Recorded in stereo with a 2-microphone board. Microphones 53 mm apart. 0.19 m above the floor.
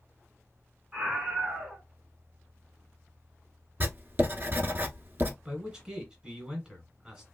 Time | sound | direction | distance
0.9 | a scream | 15° right (ahead or behind) | 1.8 m
3.8 | writing | 45° right (ahead or behind) | 0.7 m
5.5 | a man speaking | 15° right (ahead or behind) | 1.4 m